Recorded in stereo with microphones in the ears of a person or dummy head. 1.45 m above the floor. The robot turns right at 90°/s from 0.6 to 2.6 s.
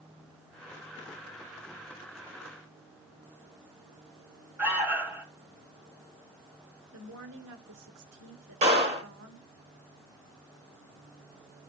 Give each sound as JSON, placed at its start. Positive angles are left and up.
{"t": 4.6, "sound": "an alarm", "side_deg": -10, "distance_m": 3.0}
{"t": 6.9, "sound": "a woman speaking", "side_deg": -80, "distance_m": 1.7}
{"t": 8.6, "sound": "a clap", "side_deg": -40, "distance_m": 3.5}